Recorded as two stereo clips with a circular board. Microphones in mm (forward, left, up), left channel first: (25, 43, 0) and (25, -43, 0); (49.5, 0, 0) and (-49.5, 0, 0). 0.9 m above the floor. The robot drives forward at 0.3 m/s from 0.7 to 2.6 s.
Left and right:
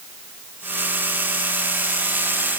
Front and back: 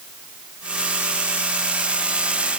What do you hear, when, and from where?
Only background noise.